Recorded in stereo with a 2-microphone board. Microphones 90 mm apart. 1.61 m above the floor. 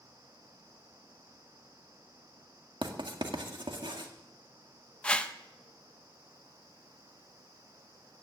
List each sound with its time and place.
2.8 s writing: 65° right (ahead or behind), 1.9 m
5.0 s a whoosh: 15° left (ahead or behind), 0.9 m